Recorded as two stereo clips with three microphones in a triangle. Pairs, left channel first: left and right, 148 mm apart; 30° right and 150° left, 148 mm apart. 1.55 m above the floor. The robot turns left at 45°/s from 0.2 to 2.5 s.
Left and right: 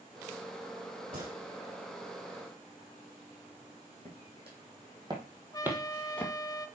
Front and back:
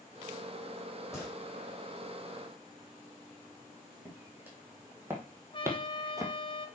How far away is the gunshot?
About 3.5 m.